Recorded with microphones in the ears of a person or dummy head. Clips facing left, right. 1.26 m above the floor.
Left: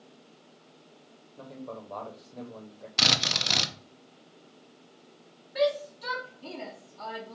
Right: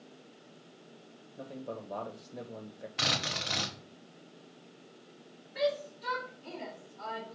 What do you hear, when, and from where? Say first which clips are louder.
1.4 s a man speaking: even; 10° right (ahead or behind), 0.9 m
3.0 s a drill: left 4 dB; 50° left (ahead or behind), 0.7 m
5.5 s a shout: left 5 dB; 70° left (ahead or behind), 1.5 m